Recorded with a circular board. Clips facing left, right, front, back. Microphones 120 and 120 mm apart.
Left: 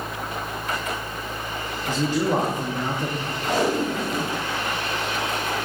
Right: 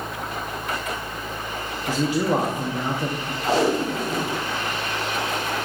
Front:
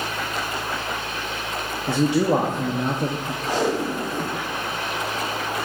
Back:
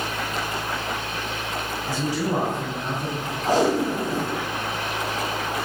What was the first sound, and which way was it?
A man speaking, 10° right.